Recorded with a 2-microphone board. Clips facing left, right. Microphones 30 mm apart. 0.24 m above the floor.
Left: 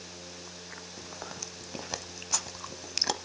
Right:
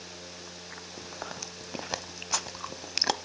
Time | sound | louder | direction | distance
1.0 | chewing | right 3 dB | 20° right (ahead or behind) | 0.6 m